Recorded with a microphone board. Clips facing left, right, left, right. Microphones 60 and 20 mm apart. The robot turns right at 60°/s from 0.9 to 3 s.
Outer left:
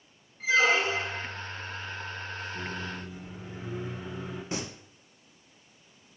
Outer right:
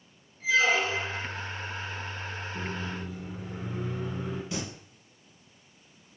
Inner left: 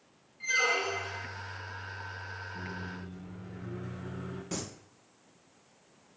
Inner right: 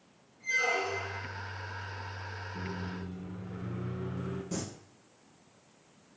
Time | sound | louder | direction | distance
0.4 | a squeak | outer left 1 dB, inner left 2 dB | 70° left (ahead or behind) | 0.9 m
2.5 | a microwave | outer right 1 dB, inner right 1 dB | 25° right (ahead or behind) | 2 m
4.5 | singing | outer left 3 dB, inner left 1 dB | 35° left (ahead or behind) | 0.9 m